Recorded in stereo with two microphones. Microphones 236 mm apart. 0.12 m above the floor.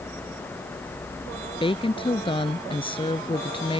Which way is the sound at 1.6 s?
20° left (ahead or behind).